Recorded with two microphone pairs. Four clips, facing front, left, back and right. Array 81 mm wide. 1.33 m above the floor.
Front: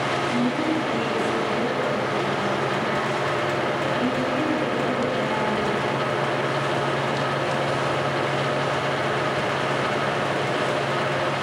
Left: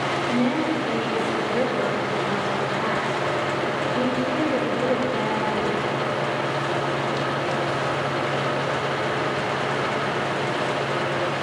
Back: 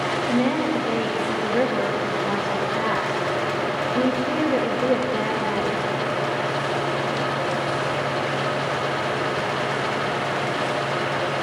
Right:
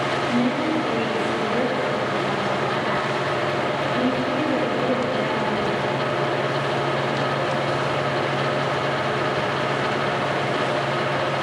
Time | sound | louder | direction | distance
0.3 | a woman speaking | even, back 4 dB | 175° left | 2.5 m